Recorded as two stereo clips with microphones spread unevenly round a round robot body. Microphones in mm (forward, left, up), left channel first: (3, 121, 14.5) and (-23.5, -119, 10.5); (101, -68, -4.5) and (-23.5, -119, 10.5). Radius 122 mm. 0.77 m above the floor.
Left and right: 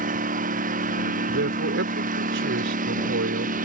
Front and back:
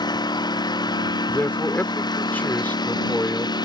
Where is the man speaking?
55° right.